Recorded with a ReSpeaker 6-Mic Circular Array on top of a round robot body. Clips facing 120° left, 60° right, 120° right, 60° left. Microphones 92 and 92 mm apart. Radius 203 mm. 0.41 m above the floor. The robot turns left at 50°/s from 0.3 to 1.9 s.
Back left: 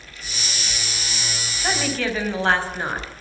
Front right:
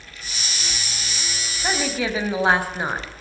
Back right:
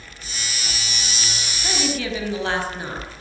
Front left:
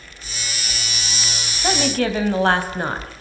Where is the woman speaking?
30° left, 4 m; by 3.2 s 20° left, 4 m.